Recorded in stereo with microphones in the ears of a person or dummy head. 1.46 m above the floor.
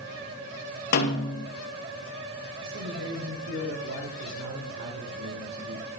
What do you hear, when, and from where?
0.9 s a snare drum: 50° left (ahead or behind), 2 m
2.6 s a man speaking: 65° right (ahead or behind), 6.5 m